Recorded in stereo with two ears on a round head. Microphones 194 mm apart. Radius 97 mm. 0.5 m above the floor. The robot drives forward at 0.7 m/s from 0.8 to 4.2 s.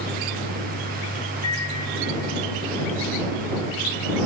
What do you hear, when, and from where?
1.4 s a microwave: 75° left (ahead or behind), 6 m